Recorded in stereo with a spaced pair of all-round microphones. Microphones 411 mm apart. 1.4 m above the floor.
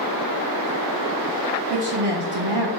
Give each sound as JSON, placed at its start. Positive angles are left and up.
{"t": 1.7, "sound": "a woman speaking", "side_deg": -80, "distance_m": 0.9}